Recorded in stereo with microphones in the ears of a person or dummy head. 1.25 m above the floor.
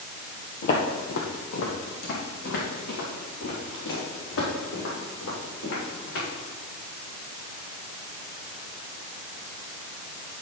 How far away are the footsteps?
About 1.7 m.